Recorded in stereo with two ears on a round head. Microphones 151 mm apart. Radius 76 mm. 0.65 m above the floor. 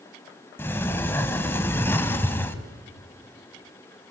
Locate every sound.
0.6 s a sliding door: 15° left (ahead or behind), 1.3 m